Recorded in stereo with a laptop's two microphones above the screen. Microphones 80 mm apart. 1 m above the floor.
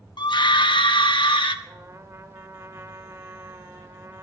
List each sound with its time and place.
0.2 s a scream: 65° left (ahead or behind), 0.9 m; by 1.6 s 85° left, 1.4 m
1.6 s a trumpet: 40° right (ahead or behind), 1.0 m